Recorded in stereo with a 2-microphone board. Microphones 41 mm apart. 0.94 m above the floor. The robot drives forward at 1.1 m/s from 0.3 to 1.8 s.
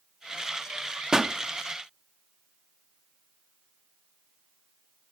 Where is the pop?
15° right (ahead or behind), 0.7 m; by 1.3 s 20° right (ahead or behind), 0.5 m.